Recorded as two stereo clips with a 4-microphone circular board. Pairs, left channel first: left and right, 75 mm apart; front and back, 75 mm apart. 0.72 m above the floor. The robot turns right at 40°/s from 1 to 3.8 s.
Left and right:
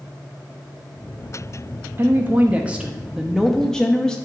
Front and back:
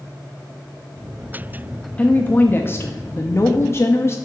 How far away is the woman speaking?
About 0.5 m.